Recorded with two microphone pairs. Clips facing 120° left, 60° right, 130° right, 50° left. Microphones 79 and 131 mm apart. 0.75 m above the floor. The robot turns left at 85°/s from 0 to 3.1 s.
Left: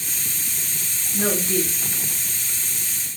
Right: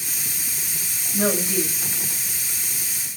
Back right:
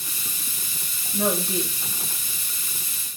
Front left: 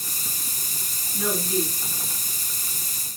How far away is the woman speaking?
About 6.5 m.